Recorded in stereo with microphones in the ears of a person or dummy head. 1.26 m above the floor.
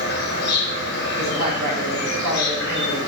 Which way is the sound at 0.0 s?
55° left (ahead or behind).